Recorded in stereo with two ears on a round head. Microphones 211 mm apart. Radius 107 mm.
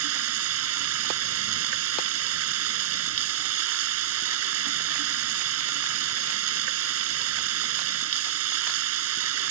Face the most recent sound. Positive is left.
turn(degrees=-70)  # may be behind; listen again after turning